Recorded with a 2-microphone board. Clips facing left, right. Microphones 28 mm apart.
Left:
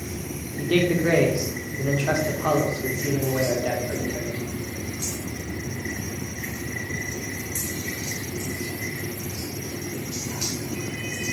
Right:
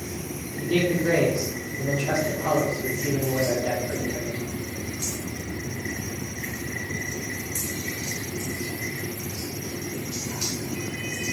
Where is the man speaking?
60° left (ahead or behind), 0.7 m.